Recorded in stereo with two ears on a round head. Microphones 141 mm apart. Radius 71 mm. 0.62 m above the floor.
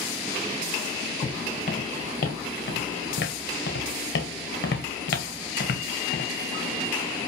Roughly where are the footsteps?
Left.